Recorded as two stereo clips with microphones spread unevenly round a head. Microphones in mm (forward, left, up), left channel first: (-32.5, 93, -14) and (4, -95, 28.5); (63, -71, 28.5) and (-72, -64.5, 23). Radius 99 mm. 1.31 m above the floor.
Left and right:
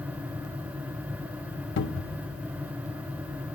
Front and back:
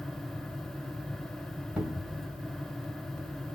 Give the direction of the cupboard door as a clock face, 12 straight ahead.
9 o'clock.